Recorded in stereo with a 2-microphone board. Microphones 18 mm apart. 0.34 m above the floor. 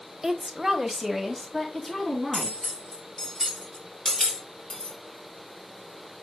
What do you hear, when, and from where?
0.2 s a woman speaking: 30° right (ahead or behind), 1.2 m; by 2.8 s 15° left (ahead or behind), 3.5 m
2.3 s cutlery clinking: 25° left (ahead or behind), 4 m
4.7 s a dropped coin: 85° left, 4.5 m